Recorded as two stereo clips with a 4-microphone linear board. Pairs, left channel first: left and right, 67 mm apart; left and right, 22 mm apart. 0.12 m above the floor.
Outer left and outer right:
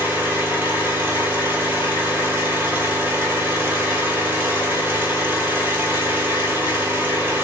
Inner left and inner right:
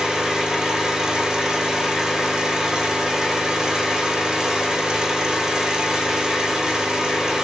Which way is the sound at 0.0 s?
25° right (ahead or behind).